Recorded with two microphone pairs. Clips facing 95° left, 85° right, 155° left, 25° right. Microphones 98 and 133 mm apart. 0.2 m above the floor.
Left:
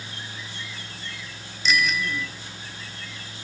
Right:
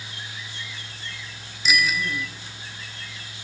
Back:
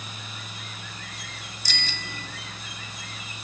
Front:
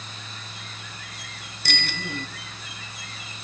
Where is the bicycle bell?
5° right, 2 m.